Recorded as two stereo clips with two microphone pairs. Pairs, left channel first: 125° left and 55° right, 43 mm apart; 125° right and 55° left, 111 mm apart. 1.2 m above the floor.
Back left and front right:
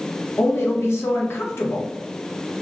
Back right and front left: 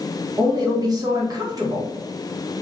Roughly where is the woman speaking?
Left.